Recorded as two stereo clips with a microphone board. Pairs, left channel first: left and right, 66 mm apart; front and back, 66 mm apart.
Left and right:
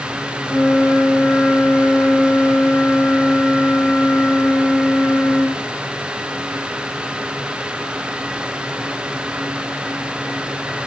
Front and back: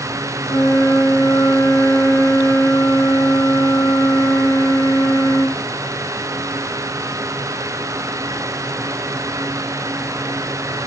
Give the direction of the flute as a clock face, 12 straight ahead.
12 o'clock.